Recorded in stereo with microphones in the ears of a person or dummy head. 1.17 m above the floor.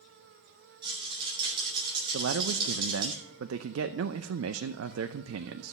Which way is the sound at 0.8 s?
25° right (ahead or behind).